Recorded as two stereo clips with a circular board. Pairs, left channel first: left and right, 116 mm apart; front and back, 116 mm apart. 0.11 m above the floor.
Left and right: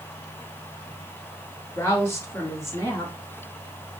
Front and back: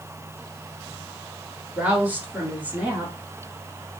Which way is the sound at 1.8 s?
120° left.